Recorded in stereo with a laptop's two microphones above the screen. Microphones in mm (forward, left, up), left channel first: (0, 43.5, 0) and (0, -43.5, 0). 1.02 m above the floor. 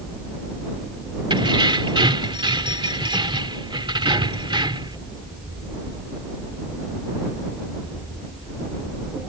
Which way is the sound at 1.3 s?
65° right (ahead or behind).